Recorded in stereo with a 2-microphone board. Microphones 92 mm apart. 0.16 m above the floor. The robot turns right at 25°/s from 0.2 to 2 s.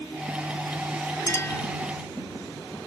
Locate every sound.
1.3 s a clink: 30° left (ahead or behind); by 1.6 s 25° left (ahead or behind)